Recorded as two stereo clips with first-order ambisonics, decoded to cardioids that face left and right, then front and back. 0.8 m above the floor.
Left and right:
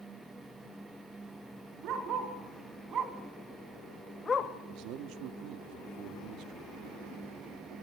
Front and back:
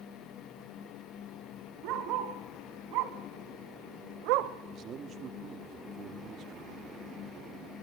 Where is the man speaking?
125° right, 1.3 m.